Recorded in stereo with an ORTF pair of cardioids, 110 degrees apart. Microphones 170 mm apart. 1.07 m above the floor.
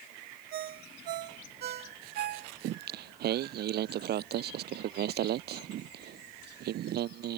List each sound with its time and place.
0.5 s a ringtone: 65° right
2.6 s singing: 65° right